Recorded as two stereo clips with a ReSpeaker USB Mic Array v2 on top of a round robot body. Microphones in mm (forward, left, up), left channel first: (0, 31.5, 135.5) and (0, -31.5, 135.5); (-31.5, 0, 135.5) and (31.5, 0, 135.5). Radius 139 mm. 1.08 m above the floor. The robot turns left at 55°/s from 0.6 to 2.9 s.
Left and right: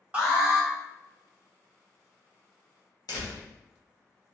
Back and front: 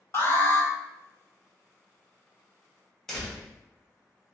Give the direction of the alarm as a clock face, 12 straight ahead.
5 o'clock.